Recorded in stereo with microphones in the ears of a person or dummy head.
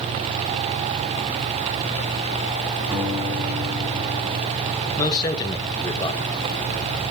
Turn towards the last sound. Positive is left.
turn(degrees=20)  # may be behind; listen again after turning